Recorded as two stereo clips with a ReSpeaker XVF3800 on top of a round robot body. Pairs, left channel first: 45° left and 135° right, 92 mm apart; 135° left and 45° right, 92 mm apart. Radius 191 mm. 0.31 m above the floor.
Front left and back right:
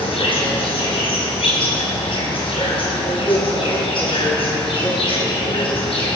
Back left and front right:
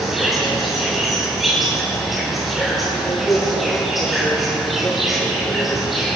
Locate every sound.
0.0 s an insect: 45° left, 6 m